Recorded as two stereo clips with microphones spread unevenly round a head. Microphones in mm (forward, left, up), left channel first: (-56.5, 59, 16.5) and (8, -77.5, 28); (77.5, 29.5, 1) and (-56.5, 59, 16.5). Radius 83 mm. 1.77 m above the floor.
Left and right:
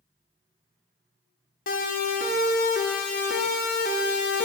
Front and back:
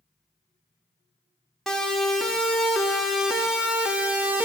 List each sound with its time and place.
1.7 s a siren: 75° left, 5.5 m; by 4.5 s 90° left, 3.5 m